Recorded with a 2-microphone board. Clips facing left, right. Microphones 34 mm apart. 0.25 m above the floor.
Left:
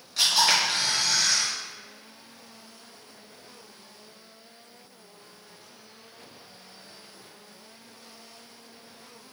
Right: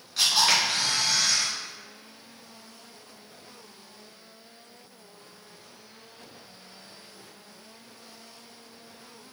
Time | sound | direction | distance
0.2 | a camera shutter | centre (ahead or behind) | 1.9 m